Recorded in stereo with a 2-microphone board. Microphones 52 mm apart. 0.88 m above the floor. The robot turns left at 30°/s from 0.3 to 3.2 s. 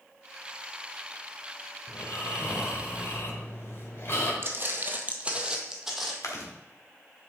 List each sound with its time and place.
1.9 s snoring: 95° left, 1.6 m; by 4.3 s 55° left, 1.6 m
4.4 s footsteps: 45° right (ahead or behind), 1.2 m; by 6.1 s 5° right (ahead or behind), 1.5 m
6.2 s chewing: 80° left, 1.4 m